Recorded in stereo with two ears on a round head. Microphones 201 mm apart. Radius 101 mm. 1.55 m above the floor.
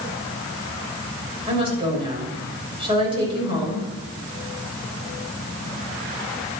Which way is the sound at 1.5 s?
25° right (ahead or behind).